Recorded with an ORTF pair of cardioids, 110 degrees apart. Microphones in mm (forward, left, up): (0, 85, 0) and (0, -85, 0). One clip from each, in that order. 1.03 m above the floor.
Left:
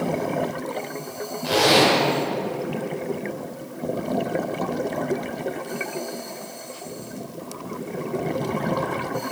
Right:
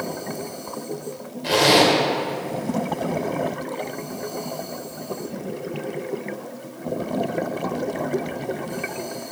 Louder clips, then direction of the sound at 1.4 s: Right 1 dB; 15° right.